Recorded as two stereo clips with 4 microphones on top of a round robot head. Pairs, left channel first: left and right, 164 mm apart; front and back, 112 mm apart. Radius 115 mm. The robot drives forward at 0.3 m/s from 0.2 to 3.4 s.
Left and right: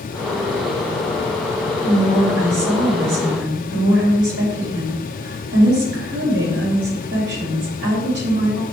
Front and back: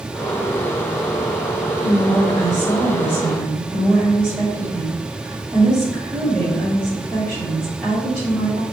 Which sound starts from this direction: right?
A woman speaking, at 1.8 s.